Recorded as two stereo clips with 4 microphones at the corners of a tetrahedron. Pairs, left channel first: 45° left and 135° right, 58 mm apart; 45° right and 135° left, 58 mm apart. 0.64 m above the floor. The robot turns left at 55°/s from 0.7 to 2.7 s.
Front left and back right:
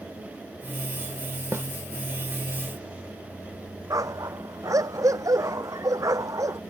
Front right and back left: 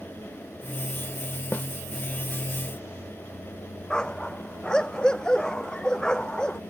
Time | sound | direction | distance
1.5 | a snare drum | 95° right | ?
3.9 | a dog barking | 120° right | ?